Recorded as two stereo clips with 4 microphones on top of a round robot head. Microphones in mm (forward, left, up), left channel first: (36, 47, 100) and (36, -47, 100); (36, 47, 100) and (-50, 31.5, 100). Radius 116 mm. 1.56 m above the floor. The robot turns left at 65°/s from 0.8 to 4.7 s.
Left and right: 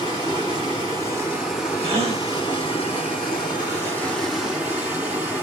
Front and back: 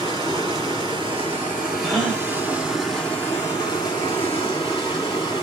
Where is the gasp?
75° right, 1.1 m; by 2.2 s 100° right, 1.1 m.